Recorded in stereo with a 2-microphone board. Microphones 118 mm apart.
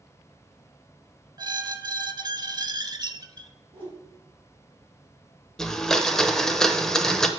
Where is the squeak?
35° right (ahead or behind), 0.5 m.